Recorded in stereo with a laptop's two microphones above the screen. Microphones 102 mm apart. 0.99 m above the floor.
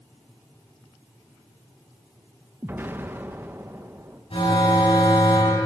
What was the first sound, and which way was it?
An explosion, 20° right (ahead or behind).